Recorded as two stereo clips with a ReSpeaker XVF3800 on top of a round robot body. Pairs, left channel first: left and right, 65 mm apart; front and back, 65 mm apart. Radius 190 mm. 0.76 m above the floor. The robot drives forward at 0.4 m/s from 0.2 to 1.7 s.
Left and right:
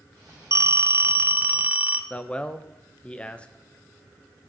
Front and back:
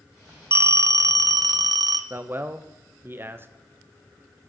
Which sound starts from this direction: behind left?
A man speaking, at 2.1 s.